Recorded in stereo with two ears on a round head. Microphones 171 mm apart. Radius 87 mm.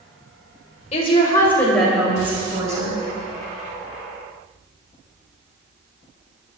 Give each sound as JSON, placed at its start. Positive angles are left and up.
{"t": 0.9, "sound": "a woman speaking", "side_deg": 35, "distance_m": 2.0}